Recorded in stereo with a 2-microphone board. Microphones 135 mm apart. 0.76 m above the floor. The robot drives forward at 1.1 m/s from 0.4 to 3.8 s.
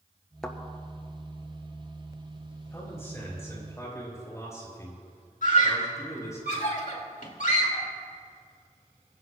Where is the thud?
5° left (ahead or behind), 1.3 m.